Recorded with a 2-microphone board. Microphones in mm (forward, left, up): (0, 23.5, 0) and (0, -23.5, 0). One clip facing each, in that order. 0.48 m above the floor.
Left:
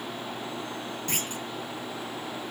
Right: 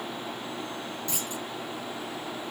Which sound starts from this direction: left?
A clunk, at 1.1 s.